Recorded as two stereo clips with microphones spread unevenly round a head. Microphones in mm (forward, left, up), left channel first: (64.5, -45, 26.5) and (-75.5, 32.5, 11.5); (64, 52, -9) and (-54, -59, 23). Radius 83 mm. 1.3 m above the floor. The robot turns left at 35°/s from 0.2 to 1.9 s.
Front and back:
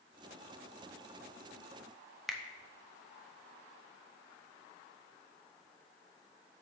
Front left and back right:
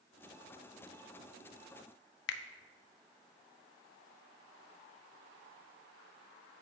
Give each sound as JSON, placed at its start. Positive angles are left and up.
{"t": 2.3, "sound": "a finger snap", "azimuth_deg": 60, "distance_m": 0.5}